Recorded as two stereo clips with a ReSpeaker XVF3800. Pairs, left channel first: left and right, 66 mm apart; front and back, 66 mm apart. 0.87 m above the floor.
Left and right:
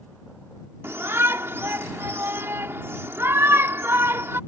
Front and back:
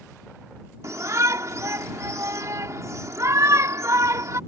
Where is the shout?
140° right.